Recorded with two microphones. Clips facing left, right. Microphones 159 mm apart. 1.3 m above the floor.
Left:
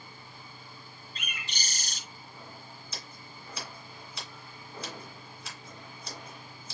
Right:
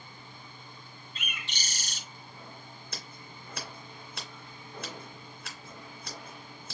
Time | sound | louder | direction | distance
1.1 | a bird | even | 40° left (ahead or behind) | 1.9 m
2.9 | scissors | right 2 dB | 60° right (ahead or behind) | 2 m